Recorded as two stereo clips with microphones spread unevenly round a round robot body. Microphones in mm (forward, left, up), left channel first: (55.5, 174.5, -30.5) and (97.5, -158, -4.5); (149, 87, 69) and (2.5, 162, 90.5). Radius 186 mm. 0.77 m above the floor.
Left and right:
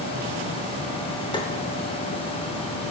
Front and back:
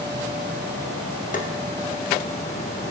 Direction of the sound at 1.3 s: 20° left.